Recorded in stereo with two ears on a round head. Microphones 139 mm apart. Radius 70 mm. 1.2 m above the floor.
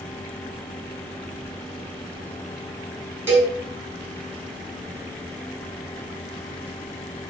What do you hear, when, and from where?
3.3 s a cowbell: 15° right (ahead or behind), 1.7 m